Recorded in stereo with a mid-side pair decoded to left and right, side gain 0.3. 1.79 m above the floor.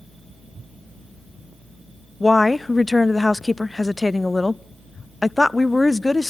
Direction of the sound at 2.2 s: 35° left.